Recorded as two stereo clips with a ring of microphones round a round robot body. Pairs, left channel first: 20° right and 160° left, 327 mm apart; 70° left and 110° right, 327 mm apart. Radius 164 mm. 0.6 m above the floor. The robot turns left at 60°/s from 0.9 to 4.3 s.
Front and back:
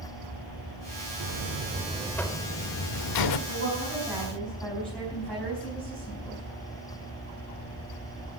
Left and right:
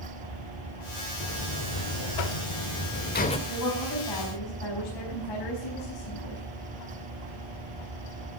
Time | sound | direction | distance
1.2 | a buzzer | 120° left | 1.1 m
3.5 | a woman speaking | 115° left | 5.5 m